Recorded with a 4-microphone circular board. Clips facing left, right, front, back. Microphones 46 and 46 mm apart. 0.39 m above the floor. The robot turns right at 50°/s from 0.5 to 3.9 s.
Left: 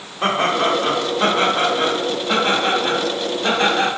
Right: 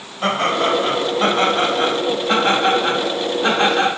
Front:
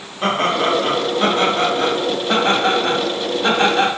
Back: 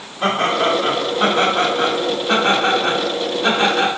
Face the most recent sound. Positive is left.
turn(degrees=-110)